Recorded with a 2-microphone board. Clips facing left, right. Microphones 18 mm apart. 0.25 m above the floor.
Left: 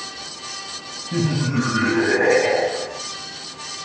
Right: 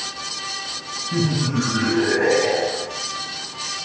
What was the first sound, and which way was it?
Laughter, 20° left (ahead or behind).